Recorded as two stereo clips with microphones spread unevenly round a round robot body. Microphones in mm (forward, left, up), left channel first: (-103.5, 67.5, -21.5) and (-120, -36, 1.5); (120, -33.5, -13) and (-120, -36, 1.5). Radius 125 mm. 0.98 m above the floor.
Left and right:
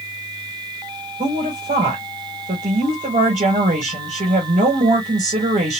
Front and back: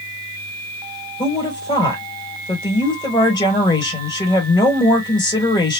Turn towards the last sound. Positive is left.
turn(degrees=-70)